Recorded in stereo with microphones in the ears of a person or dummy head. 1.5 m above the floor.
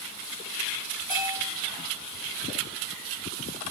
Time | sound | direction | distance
1.1 | a bell | 20° left (ahead or behind) | 2 m